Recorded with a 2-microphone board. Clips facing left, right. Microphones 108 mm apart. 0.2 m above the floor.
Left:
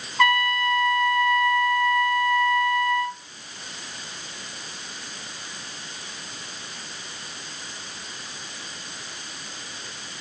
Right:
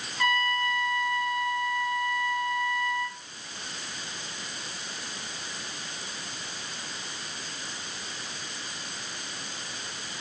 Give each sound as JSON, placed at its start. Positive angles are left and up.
{"t": 0.2, "sound": "a trumpet", "side_deg": 70, "distance_m": 0.6}